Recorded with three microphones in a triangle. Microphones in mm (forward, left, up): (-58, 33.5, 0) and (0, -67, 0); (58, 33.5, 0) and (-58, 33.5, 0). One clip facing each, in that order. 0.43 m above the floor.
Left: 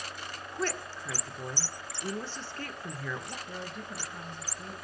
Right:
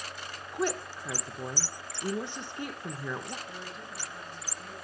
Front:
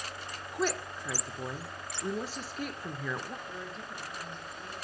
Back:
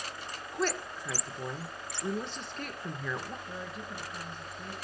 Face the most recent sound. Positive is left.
turn(degrees=100)